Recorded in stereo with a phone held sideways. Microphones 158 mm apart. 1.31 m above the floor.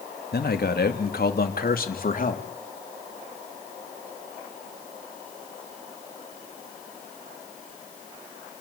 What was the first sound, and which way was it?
A man speaking, 80° left.